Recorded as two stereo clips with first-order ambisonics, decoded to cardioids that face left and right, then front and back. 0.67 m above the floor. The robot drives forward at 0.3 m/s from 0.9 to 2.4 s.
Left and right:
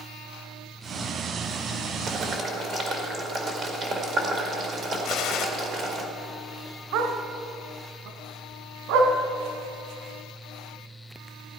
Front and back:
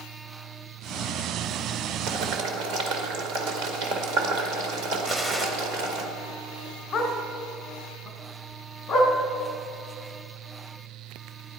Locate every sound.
2.1 s boiling: 150° right, 1.8 m
5.0 s a gunshot: 110° left, 1.2 m
6.9 s a dog barking: 70° right, 1.5 m